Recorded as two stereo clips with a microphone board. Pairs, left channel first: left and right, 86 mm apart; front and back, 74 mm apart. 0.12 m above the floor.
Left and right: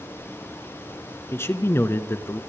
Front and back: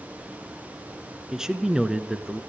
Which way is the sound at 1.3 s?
105° left.